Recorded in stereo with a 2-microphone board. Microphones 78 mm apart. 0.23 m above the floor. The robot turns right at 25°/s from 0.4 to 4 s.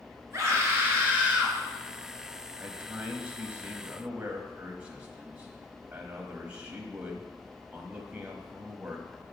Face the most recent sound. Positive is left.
turn(degrees=-15)  # may be behind; listen again after turning